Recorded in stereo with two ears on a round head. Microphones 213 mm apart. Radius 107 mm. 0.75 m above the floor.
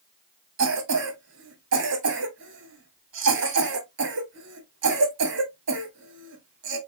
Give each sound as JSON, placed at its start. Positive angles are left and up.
{"t": 0.6, "sound": "a cough", "side_deg": -55, "distance_m": 2.0}